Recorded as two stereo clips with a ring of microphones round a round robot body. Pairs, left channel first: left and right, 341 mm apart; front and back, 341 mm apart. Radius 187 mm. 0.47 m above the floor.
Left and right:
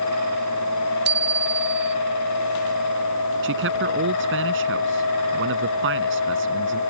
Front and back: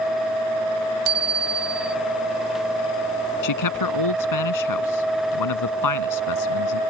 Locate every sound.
1.1 s a bicycle bell: 150° right
3.4 s a man speaking: 30° right